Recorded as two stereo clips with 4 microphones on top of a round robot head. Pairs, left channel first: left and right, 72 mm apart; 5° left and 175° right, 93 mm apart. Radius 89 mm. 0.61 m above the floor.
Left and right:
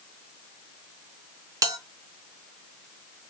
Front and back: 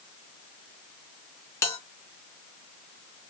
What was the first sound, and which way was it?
A bell, 60° right.